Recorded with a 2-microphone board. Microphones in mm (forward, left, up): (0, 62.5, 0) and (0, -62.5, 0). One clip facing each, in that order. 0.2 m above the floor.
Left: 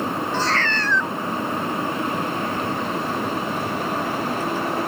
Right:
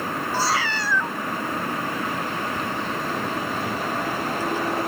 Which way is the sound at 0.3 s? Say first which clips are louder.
Right 1 dB; 10° right (ahead or behind).